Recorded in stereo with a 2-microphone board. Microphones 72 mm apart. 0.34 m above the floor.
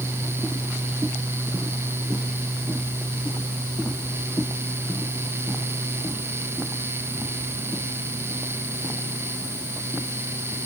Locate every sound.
Only background noise.